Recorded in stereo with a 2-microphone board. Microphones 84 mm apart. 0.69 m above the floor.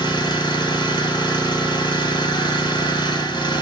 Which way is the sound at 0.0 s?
65° left (ahead or behind).